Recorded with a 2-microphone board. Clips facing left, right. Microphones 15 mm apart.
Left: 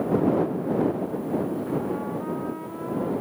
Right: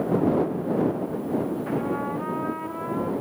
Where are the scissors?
No scissors in this recording.